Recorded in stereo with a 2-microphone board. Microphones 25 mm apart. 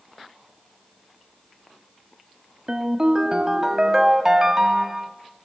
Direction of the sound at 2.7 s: 20° right (ahead or behind).